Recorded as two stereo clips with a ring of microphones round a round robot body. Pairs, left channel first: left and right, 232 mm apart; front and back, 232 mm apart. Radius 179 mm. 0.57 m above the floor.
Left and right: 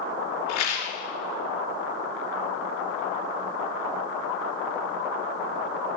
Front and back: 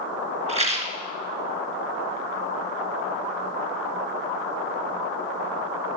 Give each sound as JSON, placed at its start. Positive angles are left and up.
{"t": 0.5, "sound": "a rattle", "azimuth_deg": 115, "distance_m": 1.8}